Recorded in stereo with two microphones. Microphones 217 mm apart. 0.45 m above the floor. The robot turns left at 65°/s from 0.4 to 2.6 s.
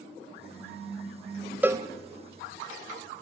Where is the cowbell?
10° right (ahead or behind), 0.6 m; by 1.9 s 25° right (ahead or behind), 0.6 m.